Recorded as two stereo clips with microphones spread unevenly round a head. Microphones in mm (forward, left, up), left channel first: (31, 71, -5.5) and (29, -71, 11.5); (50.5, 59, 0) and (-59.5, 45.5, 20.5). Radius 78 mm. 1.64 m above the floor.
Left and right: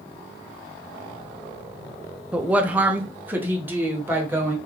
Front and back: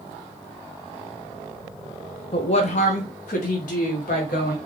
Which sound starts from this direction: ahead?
A woman speaking, at 2.3 s.